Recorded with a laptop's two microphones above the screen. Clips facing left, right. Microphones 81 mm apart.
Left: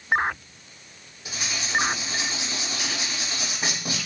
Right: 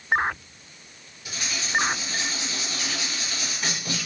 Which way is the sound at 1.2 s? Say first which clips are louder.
Left 1 dB; 25° left (ahead or behind).